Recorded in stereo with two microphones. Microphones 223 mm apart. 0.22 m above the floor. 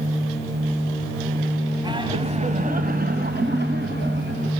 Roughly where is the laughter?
Centre.